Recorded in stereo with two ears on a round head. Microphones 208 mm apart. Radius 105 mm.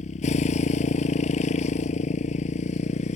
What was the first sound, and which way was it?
A motorcycle, 30° left (ahead or behind).